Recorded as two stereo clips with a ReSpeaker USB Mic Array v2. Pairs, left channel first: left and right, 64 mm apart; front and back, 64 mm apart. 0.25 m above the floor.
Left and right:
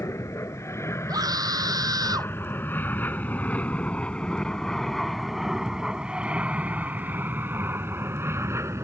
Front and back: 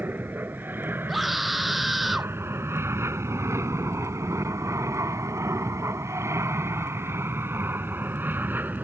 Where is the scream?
90° right.